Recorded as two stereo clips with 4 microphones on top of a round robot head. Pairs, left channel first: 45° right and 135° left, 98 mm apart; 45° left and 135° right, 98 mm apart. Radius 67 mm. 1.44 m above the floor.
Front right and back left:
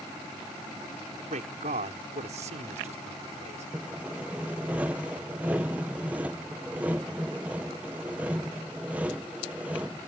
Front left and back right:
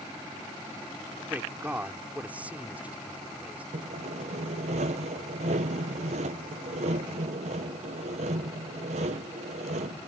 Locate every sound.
1.3 s a man speaking: 145° left
3.7 s sawing: 145° right